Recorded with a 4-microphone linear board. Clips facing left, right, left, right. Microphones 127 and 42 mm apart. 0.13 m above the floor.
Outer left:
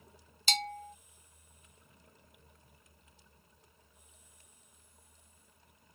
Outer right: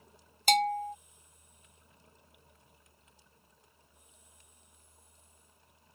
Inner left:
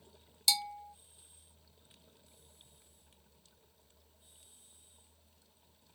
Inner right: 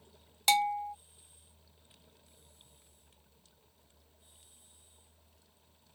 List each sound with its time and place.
0.5 s a bell: 55° right (ahead or behind)